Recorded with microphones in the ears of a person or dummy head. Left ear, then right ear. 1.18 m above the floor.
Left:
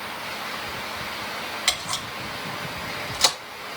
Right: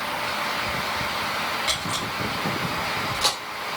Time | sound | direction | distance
1.7 | a camera shutter | 85° left | 2.0 m